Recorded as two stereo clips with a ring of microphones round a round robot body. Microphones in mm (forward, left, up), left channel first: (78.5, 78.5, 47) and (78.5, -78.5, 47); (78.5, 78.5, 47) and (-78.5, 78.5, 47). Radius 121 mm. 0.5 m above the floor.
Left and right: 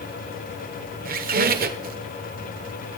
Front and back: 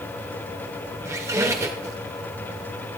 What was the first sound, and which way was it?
A squeak, 105° right.